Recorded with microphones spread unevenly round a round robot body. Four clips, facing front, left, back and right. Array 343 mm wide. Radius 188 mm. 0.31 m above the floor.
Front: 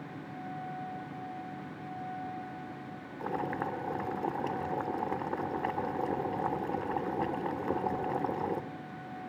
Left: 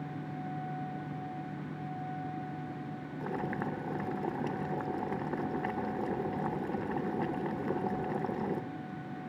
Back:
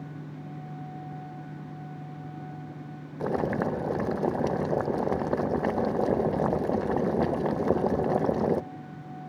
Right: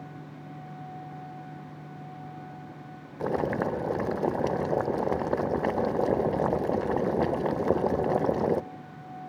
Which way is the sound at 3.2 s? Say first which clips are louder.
Right 9 dB, back 7 dB; 160° right.